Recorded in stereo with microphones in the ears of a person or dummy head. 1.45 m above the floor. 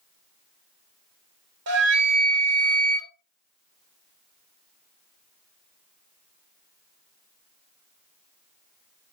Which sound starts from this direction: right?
A flute, at 1.7 s.